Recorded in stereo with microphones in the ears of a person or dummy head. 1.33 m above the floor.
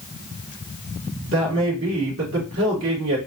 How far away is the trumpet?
No trumpet in this recording.